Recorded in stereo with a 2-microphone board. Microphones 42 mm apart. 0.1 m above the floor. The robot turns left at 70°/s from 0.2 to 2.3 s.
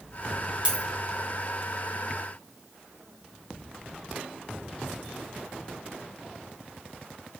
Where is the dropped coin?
25° right (ahead or behind), 0.7 m; by 0.8 s 15° right (ahead or behind), 0.7 m.